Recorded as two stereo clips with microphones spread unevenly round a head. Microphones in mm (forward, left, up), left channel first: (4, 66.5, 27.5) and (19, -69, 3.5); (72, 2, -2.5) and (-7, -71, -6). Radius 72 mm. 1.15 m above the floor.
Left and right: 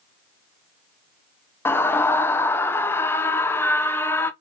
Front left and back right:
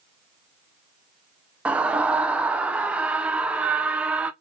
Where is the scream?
170° left, 0.6 m.